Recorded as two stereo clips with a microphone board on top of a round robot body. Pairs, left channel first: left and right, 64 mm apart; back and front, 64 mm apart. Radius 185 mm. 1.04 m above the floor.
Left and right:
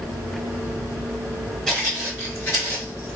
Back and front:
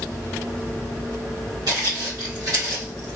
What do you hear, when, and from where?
1.7 s footsteps: 5° left, 1.8 m; by 3.2 s 95° left, 1.1 m